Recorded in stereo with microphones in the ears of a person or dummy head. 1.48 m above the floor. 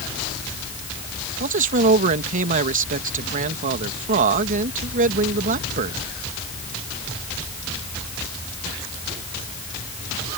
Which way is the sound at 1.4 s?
40° right (ahead or behind).